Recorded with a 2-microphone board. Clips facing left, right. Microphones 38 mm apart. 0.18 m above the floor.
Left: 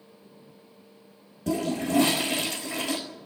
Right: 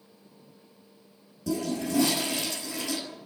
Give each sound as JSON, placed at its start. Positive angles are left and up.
{"t": 1.5, "sound": "a toilet flushing", "side_deg": 35, "distance_m": 4.0}